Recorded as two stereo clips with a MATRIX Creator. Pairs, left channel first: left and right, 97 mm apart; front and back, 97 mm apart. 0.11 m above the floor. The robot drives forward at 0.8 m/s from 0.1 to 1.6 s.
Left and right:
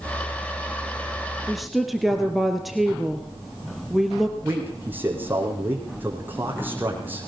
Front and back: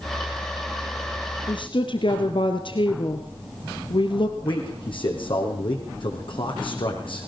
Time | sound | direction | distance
1.5 | a woman speaking | straight ahead | 2.5 m
4.4 | a man speaking | 20° right | 4.5 m